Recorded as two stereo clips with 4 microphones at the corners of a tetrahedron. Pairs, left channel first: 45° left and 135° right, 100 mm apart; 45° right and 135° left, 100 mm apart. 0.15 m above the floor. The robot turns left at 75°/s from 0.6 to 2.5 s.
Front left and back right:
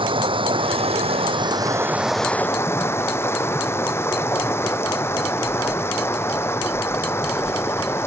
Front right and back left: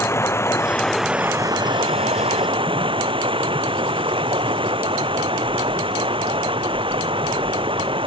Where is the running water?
110° right; by 8.1 s 110° left.